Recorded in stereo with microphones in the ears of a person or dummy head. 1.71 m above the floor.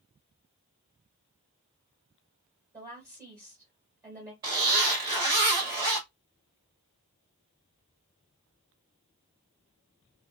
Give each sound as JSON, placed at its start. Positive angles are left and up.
{"t": 2.7, "sound": "a woman speaking", "side_deg": -20, "distance_m": 1.2}
{"t": 4.4, "sound": "a zipper", "side_deg": -20, "distance_m": 1.3}